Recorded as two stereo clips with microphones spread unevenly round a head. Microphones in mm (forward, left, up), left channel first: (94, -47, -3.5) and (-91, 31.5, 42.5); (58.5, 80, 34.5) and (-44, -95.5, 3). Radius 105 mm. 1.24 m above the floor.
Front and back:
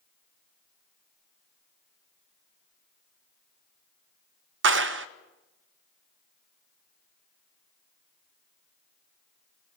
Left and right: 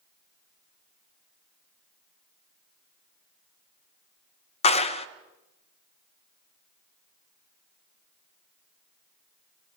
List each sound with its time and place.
4.6 s a clap: 120° left, 0.7 m